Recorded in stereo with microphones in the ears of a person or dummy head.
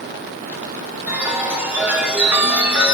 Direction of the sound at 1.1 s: 10° right (ahead or behind).